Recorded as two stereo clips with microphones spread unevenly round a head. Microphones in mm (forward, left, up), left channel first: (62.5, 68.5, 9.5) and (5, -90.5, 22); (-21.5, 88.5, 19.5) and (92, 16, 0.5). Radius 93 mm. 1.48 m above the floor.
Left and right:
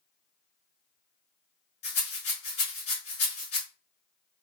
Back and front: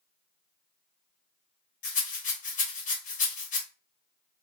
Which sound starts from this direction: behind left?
A rattle, at 1.8 s.